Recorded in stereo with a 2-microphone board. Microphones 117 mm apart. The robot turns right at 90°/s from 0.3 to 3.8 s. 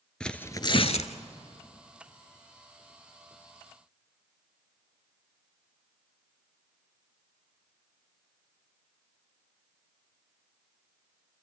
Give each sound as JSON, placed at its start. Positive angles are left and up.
{"t": 0.2, "sound": "tearing paper", "azimuth_deg": 10, "distance_m": 0.7}